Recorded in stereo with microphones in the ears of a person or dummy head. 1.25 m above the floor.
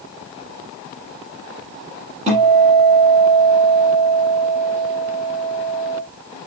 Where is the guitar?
35° right (ahead or behind), 7 m.